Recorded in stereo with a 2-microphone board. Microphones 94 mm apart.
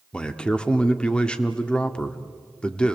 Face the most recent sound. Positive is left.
turn(degrees=10)  # may be behind; listen again after turning